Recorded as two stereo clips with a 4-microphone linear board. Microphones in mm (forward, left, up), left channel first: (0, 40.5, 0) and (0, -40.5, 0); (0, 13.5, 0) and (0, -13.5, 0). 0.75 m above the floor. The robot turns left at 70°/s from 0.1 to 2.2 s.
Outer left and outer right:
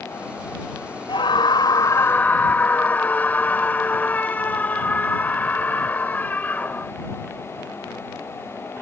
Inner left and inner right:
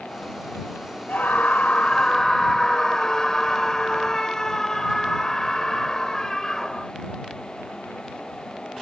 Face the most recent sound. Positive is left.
turn(degrees=20)